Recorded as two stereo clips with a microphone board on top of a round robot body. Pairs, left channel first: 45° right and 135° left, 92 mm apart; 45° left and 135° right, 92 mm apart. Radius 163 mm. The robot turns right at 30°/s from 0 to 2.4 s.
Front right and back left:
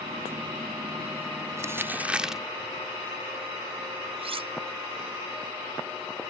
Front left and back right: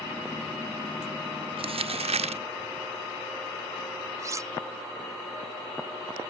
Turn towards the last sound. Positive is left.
turn(degrees=165)